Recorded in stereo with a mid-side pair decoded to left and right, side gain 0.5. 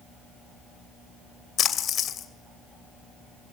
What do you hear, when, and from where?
1.6 s a splash: 55° left, 2.5 m